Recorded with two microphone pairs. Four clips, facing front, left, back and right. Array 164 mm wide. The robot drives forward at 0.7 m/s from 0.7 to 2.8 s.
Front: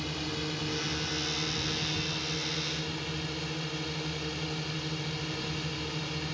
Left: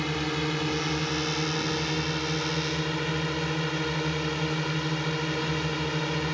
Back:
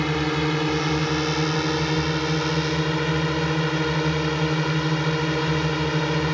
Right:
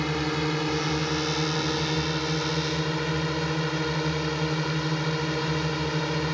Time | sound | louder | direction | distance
0.0 | a drone | right 2 dB, back 13 dB | 155° right | ?